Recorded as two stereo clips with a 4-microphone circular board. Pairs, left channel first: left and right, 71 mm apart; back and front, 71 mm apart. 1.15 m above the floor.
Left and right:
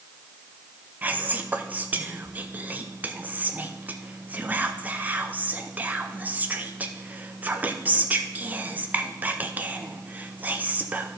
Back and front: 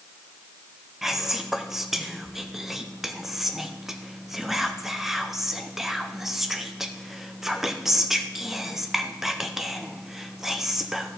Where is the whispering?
75° right, 0.7 m.